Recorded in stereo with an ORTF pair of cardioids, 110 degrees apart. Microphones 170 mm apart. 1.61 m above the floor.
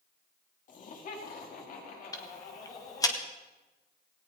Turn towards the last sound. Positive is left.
turn(degrees=20)